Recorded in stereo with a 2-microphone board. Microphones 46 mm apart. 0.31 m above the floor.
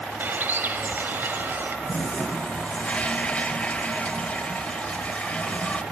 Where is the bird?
50° right (ahead or behind), 0.7 m.